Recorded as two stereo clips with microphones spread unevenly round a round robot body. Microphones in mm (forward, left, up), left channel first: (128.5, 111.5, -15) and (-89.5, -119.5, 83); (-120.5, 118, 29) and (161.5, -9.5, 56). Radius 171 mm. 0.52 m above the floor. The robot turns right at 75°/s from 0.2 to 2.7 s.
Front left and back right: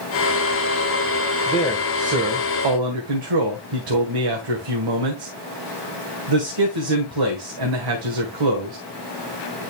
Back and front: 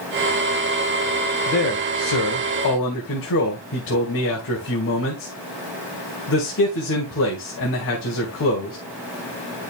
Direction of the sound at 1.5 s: 110° left.